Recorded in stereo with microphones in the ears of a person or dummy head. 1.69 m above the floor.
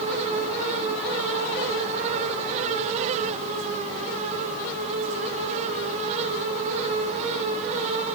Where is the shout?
I don't hear a shout.